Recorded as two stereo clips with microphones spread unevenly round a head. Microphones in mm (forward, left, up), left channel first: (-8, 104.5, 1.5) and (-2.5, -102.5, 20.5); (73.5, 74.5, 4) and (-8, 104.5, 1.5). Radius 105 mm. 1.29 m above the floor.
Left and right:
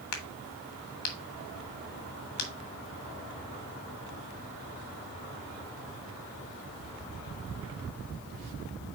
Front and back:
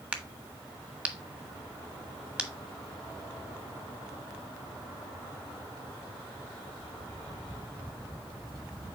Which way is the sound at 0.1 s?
80° left.